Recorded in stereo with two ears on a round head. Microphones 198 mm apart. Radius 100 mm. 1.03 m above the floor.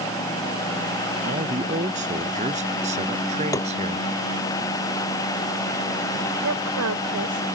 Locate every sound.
1.2 s a man speaking: 35° right (ahead or behind); by 4.1 s 30° right (ahead or behind)
3.5 s tapping: 15° left (ahead or behind)
6.4 s a woman speaking: 75° right (ahead or behind)